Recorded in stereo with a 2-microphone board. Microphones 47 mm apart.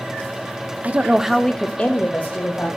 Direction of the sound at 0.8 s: 35° right (ahead or behind).